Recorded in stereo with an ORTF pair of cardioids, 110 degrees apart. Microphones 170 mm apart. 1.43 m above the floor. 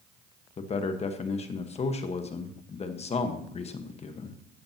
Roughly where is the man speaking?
Ahead left.